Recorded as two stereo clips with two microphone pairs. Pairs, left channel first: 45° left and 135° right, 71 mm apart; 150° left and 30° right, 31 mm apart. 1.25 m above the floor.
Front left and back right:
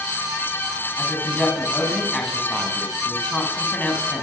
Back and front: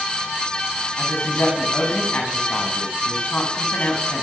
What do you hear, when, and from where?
1.0 s a woman speaking: 125° left, 9.5 m